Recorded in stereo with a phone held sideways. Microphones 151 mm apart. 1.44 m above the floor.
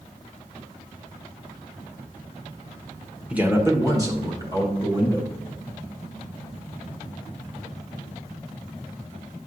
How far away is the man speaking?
About 0.9 m.